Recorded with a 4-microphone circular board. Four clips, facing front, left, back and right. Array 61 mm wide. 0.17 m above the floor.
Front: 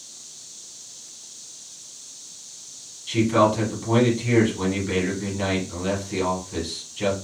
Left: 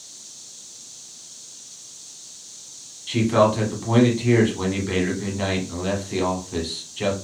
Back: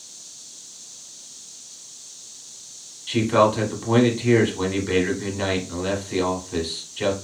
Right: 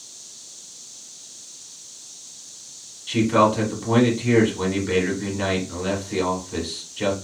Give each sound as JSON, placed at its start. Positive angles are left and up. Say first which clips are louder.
{"t": 3.1, "sound": "a man speaking", "louder": "even, back 1 dB", "azimuth_deg": 165, "distance_m": 1.0}